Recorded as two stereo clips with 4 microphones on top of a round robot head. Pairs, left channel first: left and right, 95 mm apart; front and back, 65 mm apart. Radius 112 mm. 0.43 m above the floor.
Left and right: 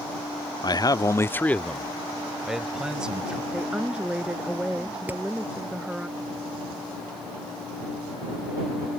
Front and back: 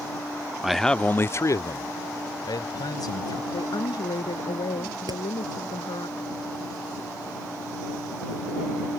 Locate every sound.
0.6 s a man speaking: 100° left; by 3.4 s 10° right
3.5 s a woman speaking: 10° right
5.1 s hammering: 165° right